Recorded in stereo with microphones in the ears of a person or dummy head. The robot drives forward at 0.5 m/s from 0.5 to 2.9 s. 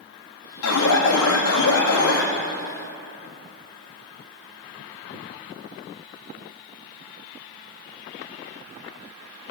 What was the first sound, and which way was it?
An alarm, 80° left.